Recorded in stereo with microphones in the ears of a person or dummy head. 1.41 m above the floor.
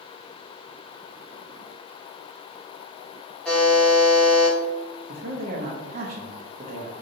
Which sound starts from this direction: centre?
A buzzer, at 3.5 s.